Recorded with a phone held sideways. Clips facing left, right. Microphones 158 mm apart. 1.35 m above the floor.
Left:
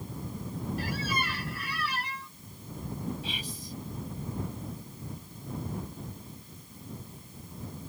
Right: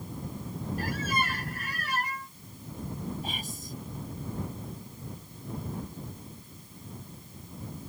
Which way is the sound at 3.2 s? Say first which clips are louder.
Right 1 dB; 45° right (ahead or behind).